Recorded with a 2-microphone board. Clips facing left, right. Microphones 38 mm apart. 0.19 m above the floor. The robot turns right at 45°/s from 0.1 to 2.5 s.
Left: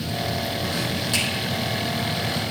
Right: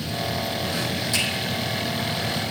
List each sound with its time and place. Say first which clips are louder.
1.1 s a finger snap: even; 45° left (ahead or behind), 6 m; by 1.3 s 40° left (ahead or behind), 6 m